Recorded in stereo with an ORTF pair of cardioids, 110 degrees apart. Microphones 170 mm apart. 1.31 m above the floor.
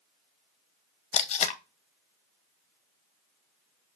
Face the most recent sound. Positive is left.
turn(degrees=45)